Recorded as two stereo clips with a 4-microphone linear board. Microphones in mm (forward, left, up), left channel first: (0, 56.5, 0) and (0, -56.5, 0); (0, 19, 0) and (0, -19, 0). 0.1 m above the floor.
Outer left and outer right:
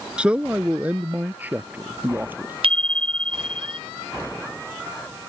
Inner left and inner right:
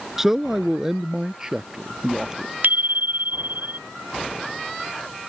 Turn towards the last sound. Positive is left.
turn(degrees=-60)  # may be behind; listen again after turning